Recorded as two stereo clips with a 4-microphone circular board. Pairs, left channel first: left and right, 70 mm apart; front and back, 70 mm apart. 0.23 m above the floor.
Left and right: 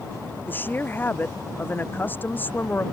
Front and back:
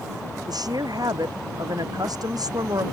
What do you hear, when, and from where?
0.5 s a woman speaking: 155° left